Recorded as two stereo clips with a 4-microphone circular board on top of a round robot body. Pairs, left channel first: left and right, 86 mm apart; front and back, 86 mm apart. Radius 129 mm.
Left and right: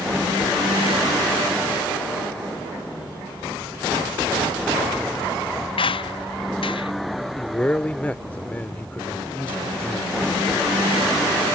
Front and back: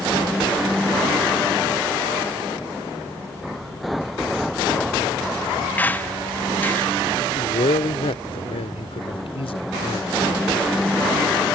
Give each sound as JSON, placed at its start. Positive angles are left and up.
{"t": 5.8, "sound": "a squeak", "azimuth_deg": 70}
{"t": 7.3, "sound": "a man speaking", "azimuth_deg": 15}